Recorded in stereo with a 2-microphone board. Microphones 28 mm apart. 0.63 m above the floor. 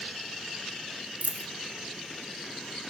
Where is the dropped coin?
65° right (ahead or behind), 1.2 m.